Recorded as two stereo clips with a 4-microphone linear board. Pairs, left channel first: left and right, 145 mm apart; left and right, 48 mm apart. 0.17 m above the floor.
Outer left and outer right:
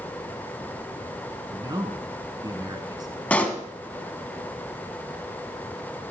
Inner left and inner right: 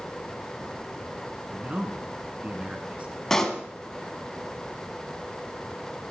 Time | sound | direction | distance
1.5 | a man speaking | 30° right (ahead or behind) | 1.6 m
3.3 | a pop | 10° left (ahead or behind) | 1.2 m